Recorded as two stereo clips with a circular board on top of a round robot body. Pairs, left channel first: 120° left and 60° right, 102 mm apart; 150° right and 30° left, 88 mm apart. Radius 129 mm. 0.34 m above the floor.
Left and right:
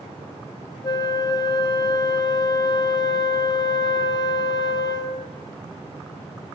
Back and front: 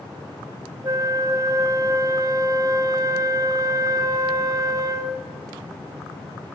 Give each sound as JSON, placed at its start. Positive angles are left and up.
{"t": 0.8, "sound": "a flute", "azimuth_deg": 80, "distance_m": 1.9}